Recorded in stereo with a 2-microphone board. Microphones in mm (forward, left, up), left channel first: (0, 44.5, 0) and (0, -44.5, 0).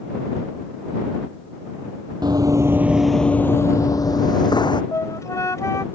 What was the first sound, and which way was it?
Running footsteps, 50° right (ahead or behind).